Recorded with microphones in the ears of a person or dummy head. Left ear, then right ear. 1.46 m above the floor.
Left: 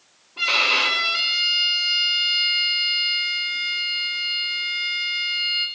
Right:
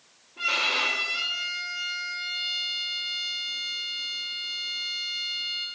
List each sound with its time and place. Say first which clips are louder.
0.4 s a violin: left 6 dB; 40° left (ahead or behind), 1.5 m